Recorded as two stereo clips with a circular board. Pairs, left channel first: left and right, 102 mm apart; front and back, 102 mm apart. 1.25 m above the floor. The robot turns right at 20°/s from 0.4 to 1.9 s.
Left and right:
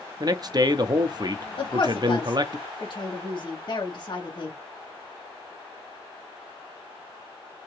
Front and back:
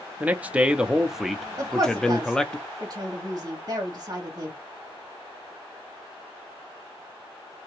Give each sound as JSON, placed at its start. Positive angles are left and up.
{"t": 0.2, "sound": "a man speaking", "azimuth_deg": -110, "distance_m": 0.5}
{"t": 1.6, "sound": "a woman speaking", "azimuth_deg": 125, "distance_m": 1.2}